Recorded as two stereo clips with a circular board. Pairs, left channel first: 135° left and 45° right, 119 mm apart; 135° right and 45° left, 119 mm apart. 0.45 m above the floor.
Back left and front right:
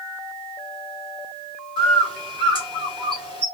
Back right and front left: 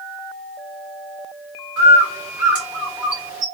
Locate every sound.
1.8 s a bird: 25° right, 1.7 m